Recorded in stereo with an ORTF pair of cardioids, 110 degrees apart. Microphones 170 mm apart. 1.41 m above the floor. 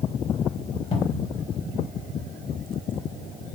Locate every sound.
0.9 s a cupboard door: 35° left, 1.3 m